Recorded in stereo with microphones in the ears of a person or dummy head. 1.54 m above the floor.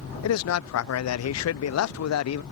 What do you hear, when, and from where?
0.2 s a man speaking: 80° left